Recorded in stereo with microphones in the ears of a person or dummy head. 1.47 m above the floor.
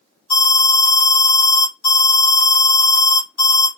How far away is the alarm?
About 3 m.